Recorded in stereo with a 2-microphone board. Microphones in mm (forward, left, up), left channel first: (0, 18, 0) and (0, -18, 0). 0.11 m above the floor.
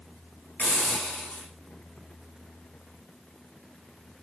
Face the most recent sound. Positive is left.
turn(degrees=55)  # may be behind; listen again after turning